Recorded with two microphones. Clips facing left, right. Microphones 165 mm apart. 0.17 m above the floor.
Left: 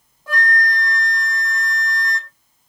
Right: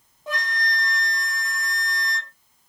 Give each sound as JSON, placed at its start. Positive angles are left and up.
{"t": 0.3, "sound": "a flute", "side_deg": -20, "distance_m": 0.9}